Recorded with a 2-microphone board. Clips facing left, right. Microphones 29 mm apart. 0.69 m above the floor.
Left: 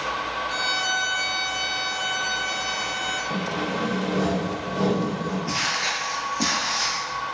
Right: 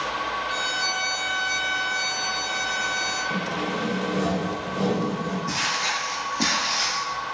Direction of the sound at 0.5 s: 15° right (ahead or behind).